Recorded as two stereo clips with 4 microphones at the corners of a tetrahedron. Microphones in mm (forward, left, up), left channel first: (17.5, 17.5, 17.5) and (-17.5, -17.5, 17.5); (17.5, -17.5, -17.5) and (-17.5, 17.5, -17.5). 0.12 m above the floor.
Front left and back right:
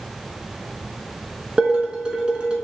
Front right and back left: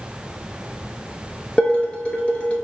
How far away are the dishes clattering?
About 1.0 m.